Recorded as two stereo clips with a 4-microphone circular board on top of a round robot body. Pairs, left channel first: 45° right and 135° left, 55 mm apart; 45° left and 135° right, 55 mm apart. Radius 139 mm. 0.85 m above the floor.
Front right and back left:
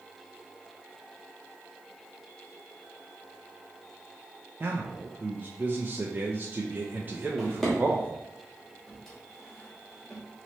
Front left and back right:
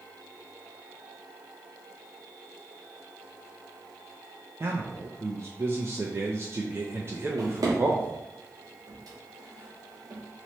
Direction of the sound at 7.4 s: 130° right.